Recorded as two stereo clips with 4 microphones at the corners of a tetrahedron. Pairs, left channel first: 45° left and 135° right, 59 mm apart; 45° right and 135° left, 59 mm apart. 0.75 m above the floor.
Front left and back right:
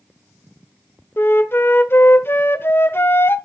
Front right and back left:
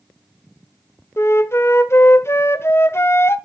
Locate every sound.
1.2 s a flute: straight ahead, 0.8 m